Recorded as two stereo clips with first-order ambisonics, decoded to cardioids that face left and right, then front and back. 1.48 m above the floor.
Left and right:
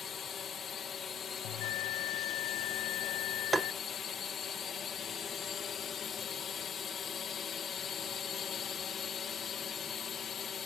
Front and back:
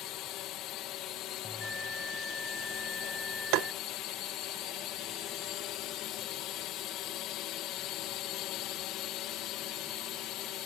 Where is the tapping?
170° right.